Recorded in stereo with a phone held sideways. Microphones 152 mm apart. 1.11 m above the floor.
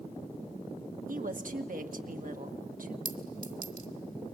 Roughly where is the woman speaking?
Right.